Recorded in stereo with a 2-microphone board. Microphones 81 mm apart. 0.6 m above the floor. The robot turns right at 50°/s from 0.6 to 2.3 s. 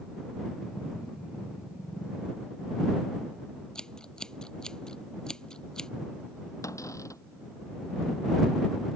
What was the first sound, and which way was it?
Scissors, 10° left (ahead or behind).